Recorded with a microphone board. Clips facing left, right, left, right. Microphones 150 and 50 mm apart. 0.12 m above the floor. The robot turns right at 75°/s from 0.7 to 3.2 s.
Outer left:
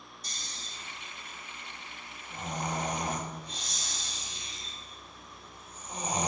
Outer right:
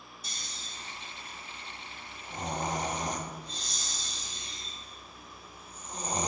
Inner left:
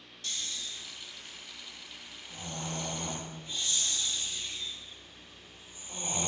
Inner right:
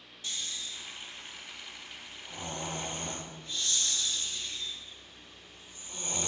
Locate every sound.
0.2 s snoring: 175° right, 0.7 m; by 6.3 s 10° left, 0.7 m